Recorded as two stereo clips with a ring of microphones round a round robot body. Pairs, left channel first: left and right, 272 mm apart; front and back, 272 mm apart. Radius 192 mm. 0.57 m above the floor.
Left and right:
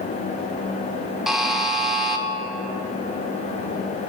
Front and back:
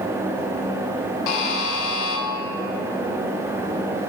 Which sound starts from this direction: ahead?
A buzzer, at 1.3 s.